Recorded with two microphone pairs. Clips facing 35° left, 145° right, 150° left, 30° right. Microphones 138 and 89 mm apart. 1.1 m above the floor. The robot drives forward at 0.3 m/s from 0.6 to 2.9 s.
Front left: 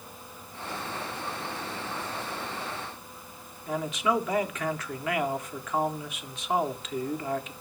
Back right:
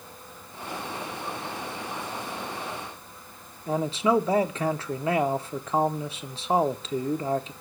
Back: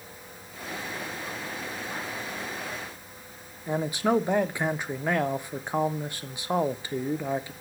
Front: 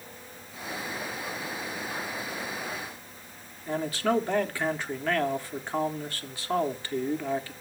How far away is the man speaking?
About 0.7 m.